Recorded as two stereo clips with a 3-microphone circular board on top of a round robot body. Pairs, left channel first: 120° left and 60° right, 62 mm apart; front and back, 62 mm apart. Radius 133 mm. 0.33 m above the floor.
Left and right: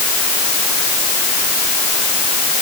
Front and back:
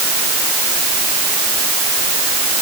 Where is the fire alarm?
No fire alarm in this recording.